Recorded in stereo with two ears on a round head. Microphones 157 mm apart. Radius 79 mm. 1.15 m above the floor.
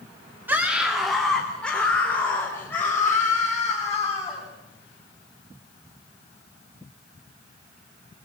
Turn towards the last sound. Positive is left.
turn(degrees=15)  # may be behind; listen again after turning